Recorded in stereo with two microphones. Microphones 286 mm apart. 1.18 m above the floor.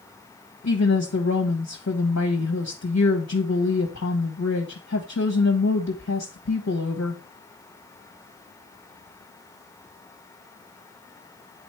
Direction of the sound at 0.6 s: 65° left (ahead or behind).